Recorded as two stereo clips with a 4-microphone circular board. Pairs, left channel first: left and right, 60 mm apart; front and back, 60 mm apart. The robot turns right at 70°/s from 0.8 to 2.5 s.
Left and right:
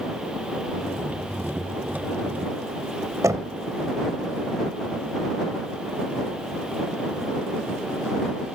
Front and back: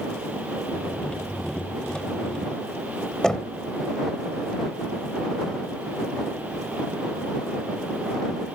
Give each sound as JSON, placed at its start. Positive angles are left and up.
{"t": 3.2, "sound": "knocking", "azimuth_deg": -75}